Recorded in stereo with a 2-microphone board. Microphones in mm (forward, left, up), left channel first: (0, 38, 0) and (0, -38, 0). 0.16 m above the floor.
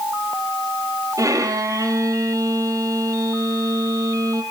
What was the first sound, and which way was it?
A violin, 45° right (ahead or behind).